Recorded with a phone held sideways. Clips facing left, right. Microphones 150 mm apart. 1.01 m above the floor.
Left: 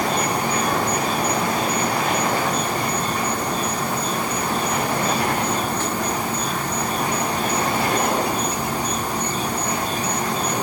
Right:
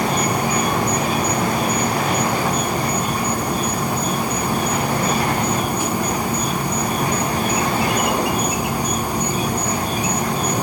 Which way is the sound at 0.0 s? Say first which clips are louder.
Right 2 dB; 10° right (ahead or behind).